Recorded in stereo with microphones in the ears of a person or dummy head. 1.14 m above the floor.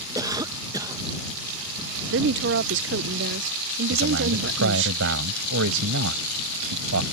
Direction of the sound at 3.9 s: 75° right (ahead or behind).